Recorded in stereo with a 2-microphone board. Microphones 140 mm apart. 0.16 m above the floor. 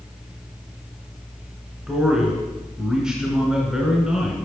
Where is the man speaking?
5° right (ahead or behind), 1.2 m.